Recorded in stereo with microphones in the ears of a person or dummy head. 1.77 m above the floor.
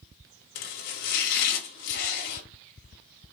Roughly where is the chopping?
Left.